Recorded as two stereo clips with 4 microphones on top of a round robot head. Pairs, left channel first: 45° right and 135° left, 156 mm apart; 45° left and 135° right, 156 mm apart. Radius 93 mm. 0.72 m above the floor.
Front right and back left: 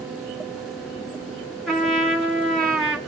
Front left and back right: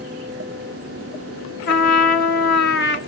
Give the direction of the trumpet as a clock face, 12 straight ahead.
11 o'clock.